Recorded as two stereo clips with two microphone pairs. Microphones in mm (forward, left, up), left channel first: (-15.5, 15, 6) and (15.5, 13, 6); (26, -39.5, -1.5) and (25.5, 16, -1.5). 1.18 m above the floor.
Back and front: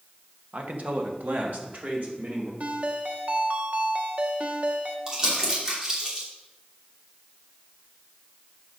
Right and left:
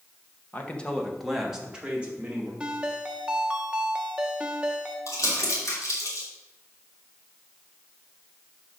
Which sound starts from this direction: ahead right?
A man speaking, at 0.5 s.